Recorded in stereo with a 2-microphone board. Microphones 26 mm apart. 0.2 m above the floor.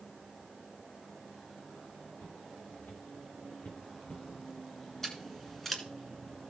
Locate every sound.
2.2 s footsteps: 85° left, 5 m; by 4.2 s 60° left (ahead or behind), 4 m
5.0 s scissors: 10° left (ahead or behind), 1.9 m